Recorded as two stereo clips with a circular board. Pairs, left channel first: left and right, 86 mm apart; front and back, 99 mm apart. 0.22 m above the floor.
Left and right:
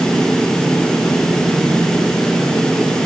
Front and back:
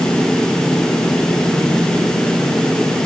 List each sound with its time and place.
Only background noise.